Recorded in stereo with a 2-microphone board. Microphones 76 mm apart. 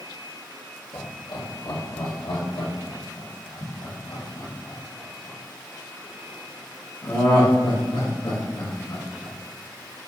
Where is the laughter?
70° left (ahead or behind), 2 m; by 9.3 s 85° left, 6 m.